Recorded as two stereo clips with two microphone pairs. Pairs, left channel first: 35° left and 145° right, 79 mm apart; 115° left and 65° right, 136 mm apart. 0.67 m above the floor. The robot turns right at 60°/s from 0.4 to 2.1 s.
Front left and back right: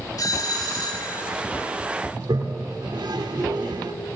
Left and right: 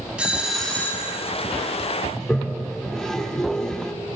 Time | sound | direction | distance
0.2 | a doorbell | 15° left | 3 m
2.1 | a toilet flushing | 160° right | 1.3 m